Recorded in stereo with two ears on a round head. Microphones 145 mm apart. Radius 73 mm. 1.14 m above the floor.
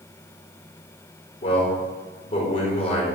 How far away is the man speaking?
About 4.5 m.